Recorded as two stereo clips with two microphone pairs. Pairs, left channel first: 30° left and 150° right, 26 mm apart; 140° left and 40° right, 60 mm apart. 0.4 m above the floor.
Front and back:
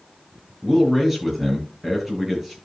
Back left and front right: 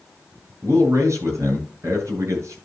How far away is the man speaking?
About 7.5 m.